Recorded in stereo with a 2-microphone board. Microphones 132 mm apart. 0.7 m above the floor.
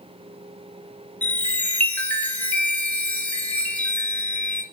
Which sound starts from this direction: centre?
A chime, at 1.2 s.